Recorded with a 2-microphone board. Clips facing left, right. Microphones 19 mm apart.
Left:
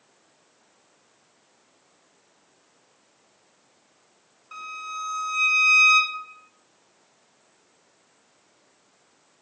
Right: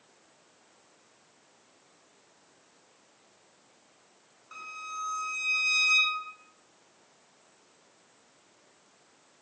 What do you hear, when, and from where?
4.5 s a violin: 15° left (ahead or behind), 0.7 m